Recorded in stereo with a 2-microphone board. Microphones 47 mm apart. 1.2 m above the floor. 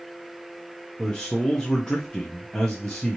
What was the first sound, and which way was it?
A man speaking, 20° left (ahead or behind).